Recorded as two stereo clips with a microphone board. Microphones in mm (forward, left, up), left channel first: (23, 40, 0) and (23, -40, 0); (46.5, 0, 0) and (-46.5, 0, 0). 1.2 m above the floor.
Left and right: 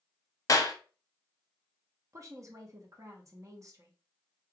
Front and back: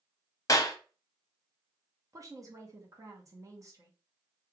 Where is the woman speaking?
130° right, 0.9 m.